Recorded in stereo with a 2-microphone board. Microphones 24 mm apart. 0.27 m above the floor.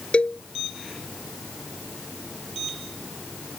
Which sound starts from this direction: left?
A cowbell, at 0.1 s.